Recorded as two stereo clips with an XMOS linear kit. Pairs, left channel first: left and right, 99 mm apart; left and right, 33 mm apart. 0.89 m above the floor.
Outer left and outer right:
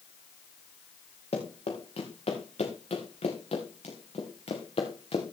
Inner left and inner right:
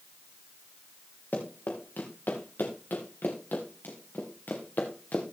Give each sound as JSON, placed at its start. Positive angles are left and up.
{"t": 1.3, "sound": "running footsteps", "side_deg": 70, "distance_m": 4.0}